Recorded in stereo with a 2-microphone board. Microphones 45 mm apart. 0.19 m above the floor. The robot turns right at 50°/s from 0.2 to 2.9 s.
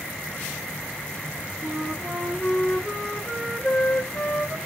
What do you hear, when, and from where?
1.6 s a flute: 45° right, 0.6 m; by 4.6 s 15° left, 0.6 m